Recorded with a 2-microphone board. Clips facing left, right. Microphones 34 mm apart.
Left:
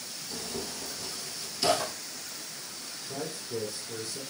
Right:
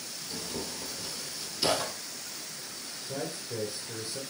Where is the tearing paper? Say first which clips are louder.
Even; centre (ahead or behind), 1.4 m.